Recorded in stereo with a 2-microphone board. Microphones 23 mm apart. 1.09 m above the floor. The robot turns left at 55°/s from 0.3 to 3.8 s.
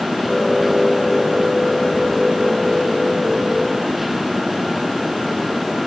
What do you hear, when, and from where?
Only background noise.